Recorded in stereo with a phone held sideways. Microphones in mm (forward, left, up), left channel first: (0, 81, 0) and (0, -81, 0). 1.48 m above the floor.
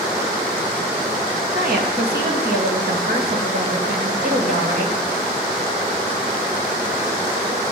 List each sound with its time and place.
1.5 s a woman speaking: 85° right, 2.5 m